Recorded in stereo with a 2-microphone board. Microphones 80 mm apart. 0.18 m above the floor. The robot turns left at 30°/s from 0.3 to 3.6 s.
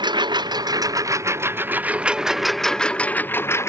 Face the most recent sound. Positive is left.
turn(degrees=145)